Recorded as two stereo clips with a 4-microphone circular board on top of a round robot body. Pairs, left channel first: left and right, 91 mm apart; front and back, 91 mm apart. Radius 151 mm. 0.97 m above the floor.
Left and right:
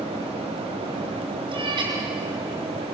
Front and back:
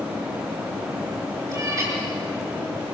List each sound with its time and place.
1.5 s a cat meowing: 125° right, 7 m